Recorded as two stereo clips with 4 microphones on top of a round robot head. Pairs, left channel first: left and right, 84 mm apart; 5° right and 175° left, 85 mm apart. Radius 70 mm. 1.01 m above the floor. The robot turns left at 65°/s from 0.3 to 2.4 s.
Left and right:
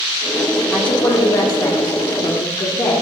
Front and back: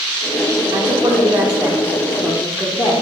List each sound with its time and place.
0.7 s a woman speaking: 160° left, 1.4 m; by 2.9 s 50° left, 1.4 m